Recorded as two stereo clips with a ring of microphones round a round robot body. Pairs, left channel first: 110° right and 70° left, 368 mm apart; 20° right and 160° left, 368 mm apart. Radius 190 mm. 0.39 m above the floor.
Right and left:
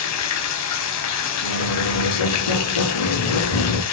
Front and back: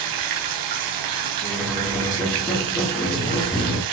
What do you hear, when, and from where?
0.0 s running water: 165° right, 1.1 m
1.4 s a squeak: 110° right, 3.5 m